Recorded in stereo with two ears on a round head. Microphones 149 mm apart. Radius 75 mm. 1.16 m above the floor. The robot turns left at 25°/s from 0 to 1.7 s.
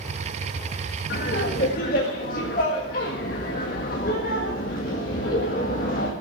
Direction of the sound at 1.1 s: 65° left (ahead or behind).